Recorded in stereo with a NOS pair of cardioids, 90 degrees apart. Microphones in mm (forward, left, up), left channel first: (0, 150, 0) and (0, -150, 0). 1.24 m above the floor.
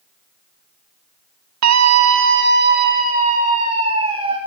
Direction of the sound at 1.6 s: 70° right.